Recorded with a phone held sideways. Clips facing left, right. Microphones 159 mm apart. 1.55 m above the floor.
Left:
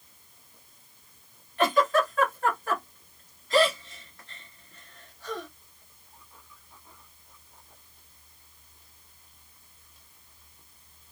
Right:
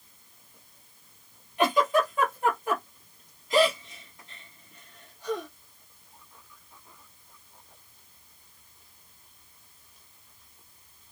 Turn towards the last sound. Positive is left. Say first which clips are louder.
# even
turn(degrees=-15)  # may be behind; listen again after turning